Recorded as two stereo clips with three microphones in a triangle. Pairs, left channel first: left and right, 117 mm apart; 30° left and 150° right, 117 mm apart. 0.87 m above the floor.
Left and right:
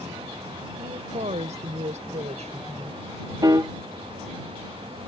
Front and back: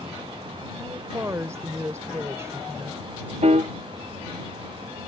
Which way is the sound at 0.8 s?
85° right.